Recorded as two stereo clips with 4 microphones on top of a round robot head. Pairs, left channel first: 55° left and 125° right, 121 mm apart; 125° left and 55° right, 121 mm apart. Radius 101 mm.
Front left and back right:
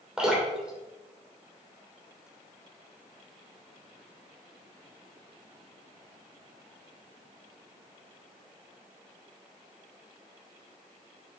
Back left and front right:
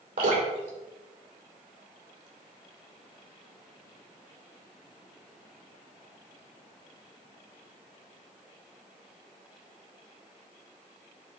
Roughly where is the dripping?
Ahead right.